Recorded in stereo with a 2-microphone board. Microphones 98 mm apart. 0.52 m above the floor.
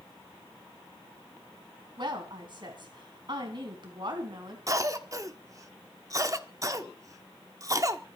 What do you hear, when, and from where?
2.0 s a woman speaking: 50° right (ahead or behind), 4 m
4.7 s a cough: 35° right (ahead or behind), 1.1 m